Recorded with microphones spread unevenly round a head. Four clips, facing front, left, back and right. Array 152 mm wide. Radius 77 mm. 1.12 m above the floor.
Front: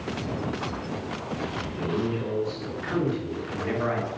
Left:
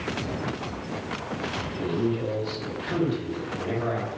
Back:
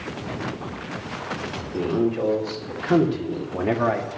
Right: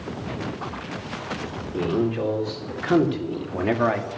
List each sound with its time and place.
1.7 s a man speaking: 135° right, 3.5 m; by 4.1 s 130° right, 2 m